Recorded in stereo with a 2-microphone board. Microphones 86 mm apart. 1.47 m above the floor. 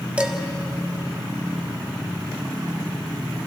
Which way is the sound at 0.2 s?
15° right (ahead or behind).